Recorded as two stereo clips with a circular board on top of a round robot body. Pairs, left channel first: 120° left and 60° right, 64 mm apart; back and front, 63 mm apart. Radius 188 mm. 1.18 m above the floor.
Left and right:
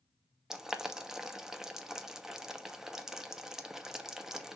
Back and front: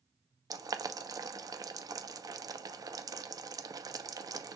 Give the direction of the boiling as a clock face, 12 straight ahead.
11 o'clock.